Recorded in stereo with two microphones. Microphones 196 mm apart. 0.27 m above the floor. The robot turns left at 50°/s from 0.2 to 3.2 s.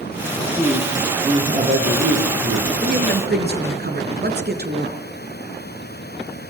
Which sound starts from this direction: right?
A woman speaking, at 2.8 s.